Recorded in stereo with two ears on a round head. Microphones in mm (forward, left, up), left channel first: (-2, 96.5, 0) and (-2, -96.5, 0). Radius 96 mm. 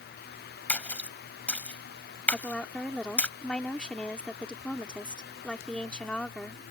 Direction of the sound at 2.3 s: 5° left (ahead or behind).